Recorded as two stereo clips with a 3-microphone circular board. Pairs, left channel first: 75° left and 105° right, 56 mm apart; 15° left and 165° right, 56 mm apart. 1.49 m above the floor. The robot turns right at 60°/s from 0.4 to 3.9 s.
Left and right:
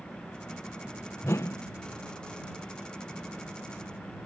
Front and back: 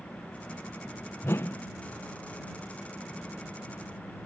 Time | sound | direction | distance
1.2 | a whoosh | 45° left | ?